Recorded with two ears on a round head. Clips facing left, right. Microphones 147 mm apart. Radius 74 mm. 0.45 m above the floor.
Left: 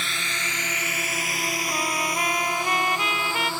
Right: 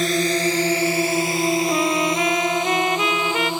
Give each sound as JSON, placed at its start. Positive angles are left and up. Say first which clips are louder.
{"t": 0.0, "sound": "a drone", "louder": "right 15 dB", "side_deg": -35}
{"t": 1.7, "sound": "a trumpet", "louder": "right 8 dB", "side_deg": -70}